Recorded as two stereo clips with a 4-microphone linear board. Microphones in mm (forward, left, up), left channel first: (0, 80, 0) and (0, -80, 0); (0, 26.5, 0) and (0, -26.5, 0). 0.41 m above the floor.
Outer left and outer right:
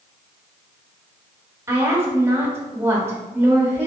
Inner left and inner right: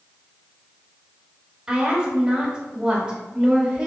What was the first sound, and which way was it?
A woman speaking, 15° right (ahead or behind).